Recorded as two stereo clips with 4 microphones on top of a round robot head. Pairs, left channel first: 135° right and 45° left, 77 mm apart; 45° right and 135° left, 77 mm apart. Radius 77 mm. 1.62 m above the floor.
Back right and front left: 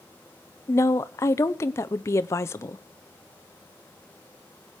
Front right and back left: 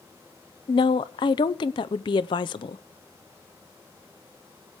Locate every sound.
0.7 s a woman speaking: 75° right, 0.7 m